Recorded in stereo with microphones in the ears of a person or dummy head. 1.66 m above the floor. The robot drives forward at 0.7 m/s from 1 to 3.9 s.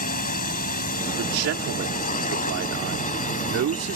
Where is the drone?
45° left (ahead or behind); by 4.0 s 40° left (ahead or behind).